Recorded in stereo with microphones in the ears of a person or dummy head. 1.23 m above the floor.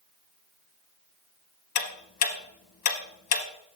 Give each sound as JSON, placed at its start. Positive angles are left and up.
{"t": 1.8, "sound": "ticking", "side_deg": 45, "distance_m": 0.9}